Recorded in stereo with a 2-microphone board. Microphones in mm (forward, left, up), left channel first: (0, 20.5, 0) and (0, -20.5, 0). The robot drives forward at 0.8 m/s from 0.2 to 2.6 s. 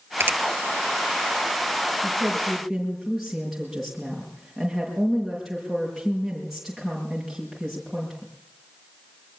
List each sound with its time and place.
0.2 s a finger snap: 60° right (ahead or behind), 2 m
2.0 s a woman speaking: 5° right (ahead or behind), 6 m